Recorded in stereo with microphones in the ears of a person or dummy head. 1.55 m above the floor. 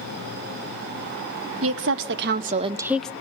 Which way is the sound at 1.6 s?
75° right (ahead or behind).